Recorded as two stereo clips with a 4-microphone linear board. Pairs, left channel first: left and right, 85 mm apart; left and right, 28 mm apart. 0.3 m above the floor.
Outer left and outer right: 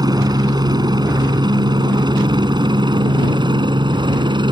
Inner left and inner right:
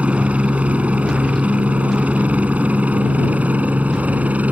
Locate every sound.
0.0 s a helicopter: 50° right (ahead or behind); by 4.5 s 65° right (ahead or behind)